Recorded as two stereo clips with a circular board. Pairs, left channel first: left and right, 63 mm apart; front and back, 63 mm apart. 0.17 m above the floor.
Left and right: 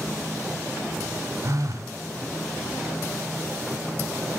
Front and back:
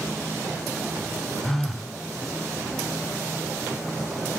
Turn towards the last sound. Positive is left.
turn(degrees=-85)